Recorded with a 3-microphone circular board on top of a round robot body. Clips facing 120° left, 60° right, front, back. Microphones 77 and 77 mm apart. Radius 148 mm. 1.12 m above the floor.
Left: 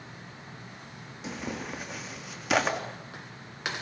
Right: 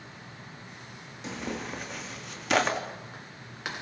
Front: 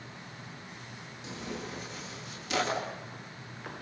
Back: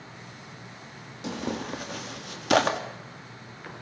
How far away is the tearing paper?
About 2.5 m.